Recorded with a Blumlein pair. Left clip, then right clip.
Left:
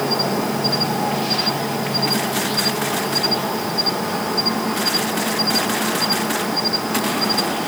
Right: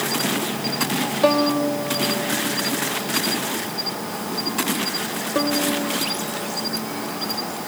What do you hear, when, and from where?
0.0 s an insect: 20° left
1.2 s a violin: 45° right